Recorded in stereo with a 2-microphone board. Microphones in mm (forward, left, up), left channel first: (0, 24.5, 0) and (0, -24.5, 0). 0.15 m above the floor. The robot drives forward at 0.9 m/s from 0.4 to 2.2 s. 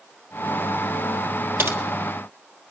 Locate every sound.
1.6 s typing on a keyboard: 50° right (ahead or behind), 1.4 m; by 1.8 s 55° right (ahead or behind), 1.3 m